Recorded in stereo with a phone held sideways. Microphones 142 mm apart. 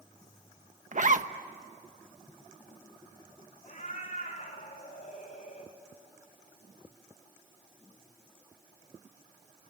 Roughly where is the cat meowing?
Left.